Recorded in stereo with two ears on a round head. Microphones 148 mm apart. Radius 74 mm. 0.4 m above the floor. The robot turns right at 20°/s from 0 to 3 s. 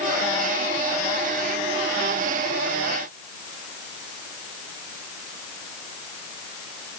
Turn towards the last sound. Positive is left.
No sound to turn to.